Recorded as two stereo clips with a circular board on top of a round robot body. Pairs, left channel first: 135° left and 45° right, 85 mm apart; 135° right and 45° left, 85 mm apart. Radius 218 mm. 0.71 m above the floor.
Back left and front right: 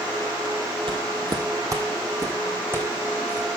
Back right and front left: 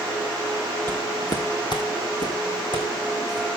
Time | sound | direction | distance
0.9 | footsteps | 70° right | 1.3 m